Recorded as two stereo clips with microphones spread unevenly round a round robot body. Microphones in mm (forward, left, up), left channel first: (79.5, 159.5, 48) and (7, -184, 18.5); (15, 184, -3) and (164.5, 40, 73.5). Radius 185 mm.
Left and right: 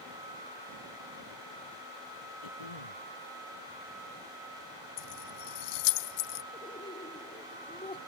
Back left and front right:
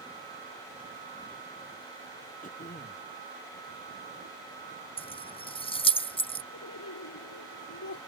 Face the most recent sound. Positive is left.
turn(degrees=155)